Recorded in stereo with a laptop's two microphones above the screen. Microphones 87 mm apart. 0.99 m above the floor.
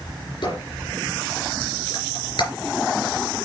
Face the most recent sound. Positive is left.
turn(degrees=55)  # may be behind; listen again after turning